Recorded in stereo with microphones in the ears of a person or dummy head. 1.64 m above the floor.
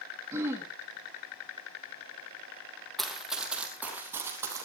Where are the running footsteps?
5° left (ahead or behind), 2.5 m; by 4.7 s 20° right (ahead or behind), 3.5 m.